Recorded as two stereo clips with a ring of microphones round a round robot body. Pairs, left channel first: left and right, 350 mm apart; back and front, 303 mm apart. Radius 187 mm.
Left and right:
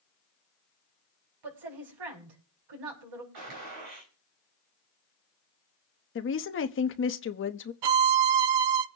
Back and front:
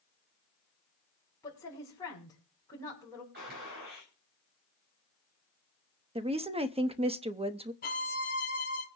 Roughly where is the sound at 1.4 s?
Right.